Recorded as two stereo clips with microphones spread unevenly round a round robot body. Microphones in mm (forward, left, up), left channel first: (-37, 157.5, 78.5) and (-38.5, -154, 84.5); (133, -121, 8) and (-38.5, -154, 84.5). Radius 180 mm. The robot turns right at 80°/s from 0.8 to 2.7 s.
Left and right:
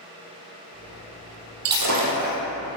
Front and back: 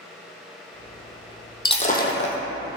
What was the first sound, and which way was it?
Breaking glass, 60° right.